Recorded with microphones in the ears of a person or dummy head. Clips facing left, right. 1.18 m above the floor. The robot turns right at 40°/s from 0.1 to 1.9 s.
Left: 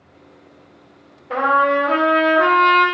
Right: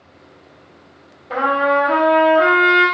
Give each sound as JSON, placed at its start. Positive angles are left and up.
{"t": 1.3, "sound": "a trumpet", "side_deg": 0, "distance_m": 1.5}